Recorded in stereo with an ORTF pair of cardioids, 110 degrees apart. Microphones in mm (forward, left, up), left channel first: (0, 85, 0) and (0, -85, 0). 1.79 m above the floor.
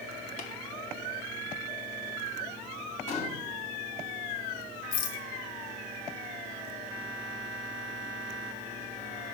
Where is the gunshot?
45° left, 1.5 m.